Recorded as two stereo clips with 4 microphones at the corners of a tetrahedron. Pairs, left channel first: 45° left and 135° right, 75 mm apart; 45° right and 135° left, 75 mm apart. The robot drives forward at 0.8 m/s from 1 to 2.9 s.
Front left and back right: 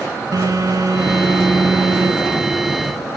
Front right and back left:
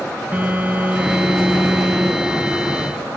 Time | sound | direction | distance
0.3 | a phone buzzing | 160° right | 1.2 m